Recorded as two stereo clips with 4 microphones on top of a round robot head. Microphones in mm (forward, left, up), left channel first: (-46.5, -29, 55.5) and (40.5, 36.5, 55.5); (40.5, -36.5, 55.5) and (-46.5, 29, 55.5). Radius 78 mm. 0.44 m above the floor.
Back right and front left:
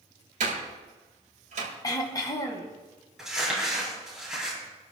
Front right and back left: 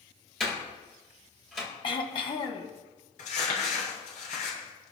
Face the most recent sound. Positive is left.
turn(degrees=-50)